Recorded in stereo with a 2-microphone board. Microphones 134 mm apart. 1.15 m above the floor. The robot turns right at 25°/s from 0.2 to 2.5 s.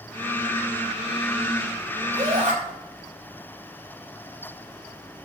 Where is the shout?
65° right (ahead or behind), 3.5 m; by 2.5 s 75° right (ahead or behind), 3.5 m.